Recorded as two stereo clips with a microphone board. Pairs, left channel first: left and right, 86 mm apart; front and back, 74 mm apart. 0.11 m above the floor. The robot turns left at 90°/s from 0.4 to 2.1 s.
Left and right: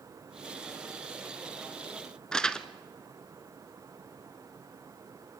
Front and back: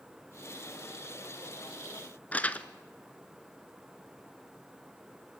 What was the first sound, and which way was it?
Crumpling, 20° left.